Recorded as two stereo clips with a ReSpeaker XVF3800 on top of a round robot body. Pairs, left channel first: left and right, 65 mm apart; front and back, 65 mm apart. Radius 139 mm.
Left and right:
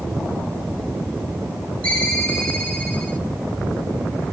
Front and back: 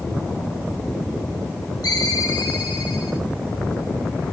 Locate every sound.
1.8 s a ringtone: 20° left, 5 m